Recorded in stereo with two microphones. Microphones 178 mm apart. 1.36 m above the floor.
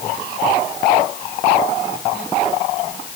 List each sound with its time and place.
Only background noise.